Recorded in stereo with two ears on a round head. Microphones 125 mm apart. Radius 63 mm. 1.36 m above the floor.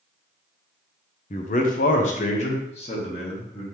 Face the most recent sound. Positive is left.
turn(degrees=40)  # may be behind; listen again after turning